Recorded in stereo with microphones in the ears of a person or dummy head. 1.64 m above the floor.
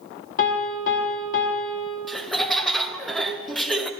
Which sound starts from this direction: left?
A piano, at 0.4 s.